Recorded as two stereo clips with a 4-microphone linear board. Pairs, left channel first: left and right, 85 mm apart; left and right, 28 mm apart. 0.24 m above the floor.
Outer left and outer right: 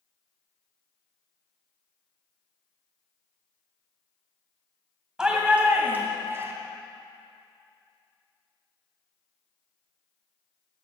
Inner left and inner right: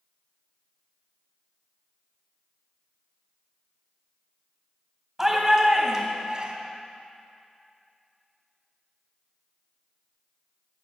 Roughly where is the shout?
Centre.